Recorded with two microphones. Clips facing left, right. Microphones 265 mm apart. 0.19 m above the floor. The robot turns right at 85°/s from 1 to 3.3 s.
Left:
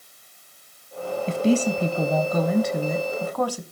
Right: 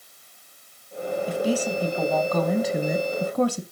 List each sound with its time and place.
1.3 s a woman speaking: 25° left (ahead or behind), 1.3 m; by 3.6 s 25° right (ahead or behind), 1.3 m